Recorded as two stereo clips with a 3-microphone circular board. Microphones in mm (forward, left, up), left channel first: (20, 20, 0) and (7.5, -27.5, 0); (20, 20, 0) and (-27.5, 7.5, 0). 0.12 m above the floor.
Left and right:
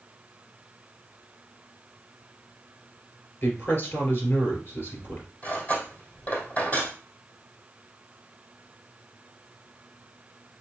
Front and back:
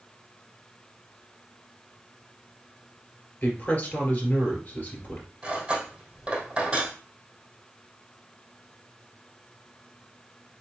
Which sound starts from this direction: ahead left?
A woman speaking, at 3.4 s.